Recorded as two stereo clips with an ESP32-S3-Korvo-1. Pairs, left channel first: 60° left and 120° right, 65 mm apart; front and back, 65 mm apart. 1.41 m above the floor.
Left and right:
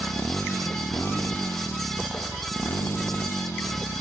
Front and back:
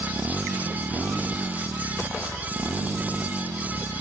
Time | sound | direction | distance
0.0 | a motorcycle | 120° left | ?